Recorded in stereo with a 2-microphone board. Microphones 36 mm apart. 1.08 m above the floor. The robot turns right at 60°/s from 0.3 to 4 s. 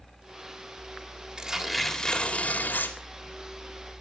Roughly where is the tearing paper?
Ahead right.